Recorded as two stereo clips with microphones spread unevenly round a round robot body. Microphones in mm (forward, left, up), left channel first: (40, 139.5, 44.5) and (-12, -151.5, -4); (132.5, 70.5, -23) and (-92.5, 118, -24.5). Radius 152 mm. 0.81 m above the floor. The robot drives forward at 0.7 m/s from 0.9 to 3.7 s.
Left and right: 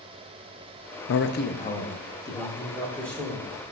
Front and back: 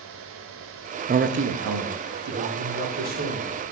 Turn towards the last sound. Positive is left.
turn(degrees=170)